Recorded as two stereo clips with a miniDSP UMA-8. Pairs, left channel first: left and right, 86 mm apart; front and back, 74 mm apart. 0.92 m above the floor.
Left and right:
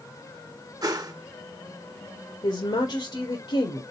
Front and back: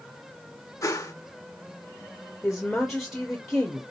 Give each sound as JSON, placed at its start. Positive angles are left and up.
{"t": 0.8, "sound": "a whoosh", "azimuth_deg": -45, "distance_m": 0.9}
{"t": 2.4, "sound": "a woman speaking", "azimuth_deg": 90, "distance_m": 1.6}